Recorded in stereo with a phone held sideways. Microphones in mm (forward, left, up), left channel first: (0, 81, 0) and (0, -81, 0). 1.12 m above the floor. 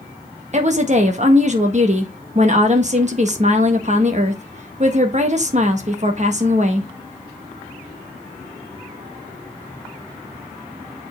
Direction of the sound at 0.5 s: 45° right (ahead or behind).